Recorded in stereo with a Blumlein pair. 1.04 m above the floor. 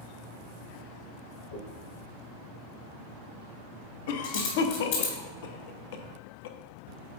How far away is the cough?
About 0.8 m.